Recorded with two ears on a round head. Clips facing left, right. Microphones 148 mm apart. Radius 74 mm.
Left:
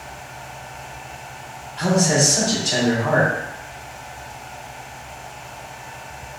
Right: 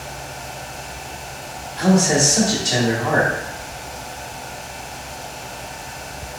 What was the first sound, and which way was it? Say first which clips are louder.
A man speaking: right 2 dB; 15° right (ahead or behind).